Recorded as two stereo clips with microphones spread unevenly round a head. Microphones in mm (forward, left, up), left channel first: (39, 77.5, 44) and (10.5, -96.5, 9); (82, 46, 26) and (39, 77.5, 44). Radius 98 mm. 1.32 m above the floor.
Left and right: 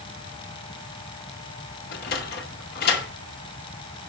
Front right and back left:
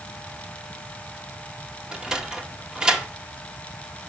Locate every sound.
1.9 s a sliding door: 85° left, 0.9 m